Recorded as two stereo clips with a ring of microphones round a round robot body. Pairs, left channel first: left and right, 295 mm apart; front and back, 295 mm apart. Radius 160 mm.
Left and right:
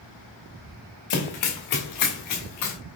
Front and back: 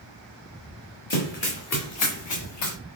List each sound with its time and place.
1.1 s running footsteps: 65° left, 1.8 m; by 2.8 s 35° left, 2.5 m